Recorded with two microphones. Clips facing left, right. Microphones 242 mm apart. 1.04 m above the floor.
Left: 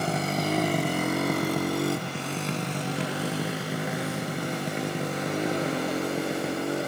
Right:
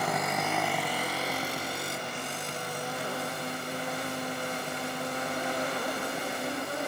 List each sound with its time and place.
0.0 s a motorcycle: 30° left (ahead or behind); by 6.9 s 75° left (ahead or behind)